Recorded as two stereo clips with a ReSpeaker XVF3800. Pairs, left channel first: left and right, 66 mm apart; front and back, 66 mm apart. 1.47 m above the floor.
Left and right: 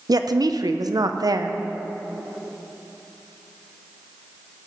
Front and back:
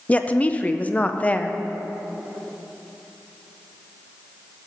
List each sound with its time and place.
0.1 s a woman speaking: 70° right, 0.7 m